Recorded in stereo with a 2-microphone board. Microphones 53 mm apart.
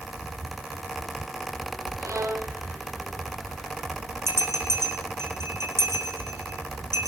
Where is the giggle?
No giggle in this recording.